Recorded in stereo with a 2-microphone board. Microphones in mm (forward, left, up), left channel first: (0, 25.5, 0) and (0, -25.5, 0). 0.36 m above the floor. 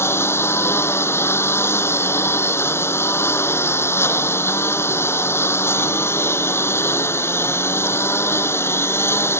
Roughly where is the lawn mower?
Left.